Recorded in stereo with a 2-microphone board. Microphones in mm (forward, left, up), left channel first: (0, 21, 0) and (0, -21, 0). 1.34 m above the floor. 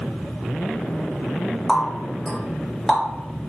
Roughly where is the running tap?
Centre.